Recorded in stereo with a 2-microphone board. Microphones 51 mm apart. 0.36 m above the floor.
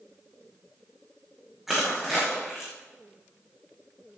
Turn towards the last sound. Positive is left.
turn(degrees=-5)  # may be behind; listen again after turning